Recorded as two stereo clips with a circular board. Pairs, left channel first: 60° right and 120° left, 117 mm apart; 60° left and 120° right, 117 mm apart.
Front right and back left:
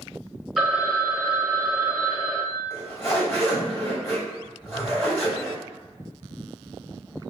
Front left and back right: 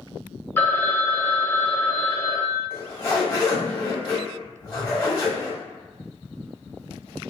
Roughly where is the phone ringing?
Ahead left.